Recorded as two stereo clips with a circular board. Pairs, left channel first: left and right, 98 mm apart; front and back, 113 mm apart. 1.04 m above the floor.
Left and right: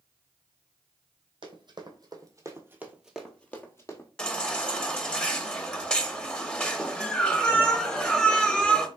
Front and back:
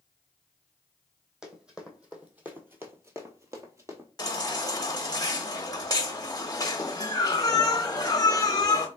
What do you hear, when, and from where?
1.4 s running footsteps: 100° right, 1.9 m; by 4.1 s 125° left, 1.4 m
4.2 s a baby crying: 20° left, 0.8 m